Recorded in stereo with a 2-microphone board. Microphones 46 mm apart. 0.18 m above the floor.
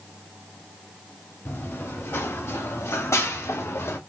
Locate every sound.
1.4 s running footsteps: 60° left (ahead or behind), 2.5 m